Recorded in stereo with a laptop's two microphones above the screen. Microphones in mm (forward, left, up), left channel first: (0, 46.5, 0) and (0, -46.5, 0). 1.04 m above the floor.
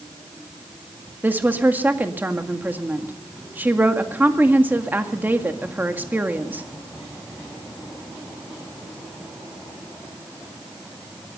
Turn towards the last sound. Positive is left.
turn(degrees=-20)  # may be behind; listen again after turning